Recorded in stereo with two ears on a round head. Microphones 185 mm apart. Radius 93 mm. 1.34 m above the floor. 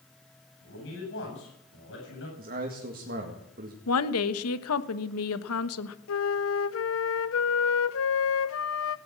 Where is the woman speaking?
80° left, 1.2 m.